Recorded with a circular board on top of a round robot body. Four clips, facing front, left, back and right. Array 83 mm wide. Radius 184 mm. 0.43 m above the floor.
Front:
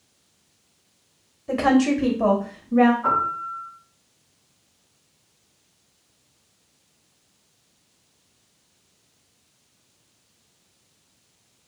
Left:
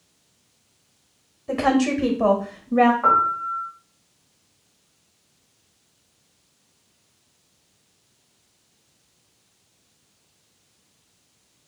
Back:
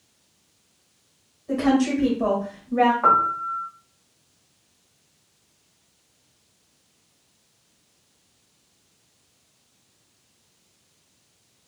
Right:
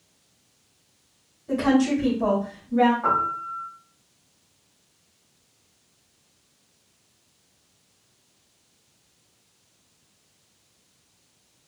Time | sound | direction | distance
1.5 | a woman speaking | 40° left | 1.2 m
3.0 | a piano | 160° left | 1.1 m